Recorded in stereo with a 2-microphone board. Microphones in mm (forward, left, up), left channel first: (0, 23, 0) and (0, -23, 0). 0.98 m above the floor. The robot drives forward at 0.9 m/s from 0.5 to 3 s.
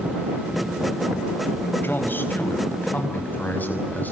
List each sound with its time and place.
1.8 s a man speaking: 45° left (ahead or behind), 4.5 m; by 4.1 s 40° left (ahead or behind), 5.5 m